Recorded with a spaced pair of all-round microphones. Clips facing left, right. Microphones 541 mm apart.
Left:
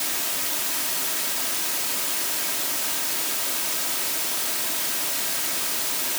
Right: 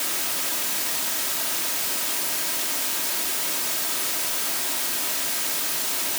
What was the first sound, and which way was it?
Only background noise.